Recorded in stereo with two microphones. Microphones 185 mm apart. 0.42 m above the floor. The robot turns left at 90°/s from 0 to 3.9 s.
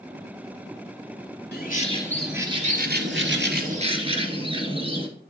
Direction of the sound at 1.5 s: 65° left.